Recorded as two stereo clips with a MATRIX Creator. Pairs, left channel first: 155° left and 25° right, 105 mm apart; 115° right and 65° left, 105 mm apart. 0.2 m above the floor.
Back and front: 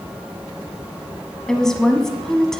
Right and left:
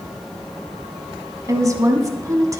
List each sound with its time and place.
1.5 s a woman speaking: 75° left, 1.3 m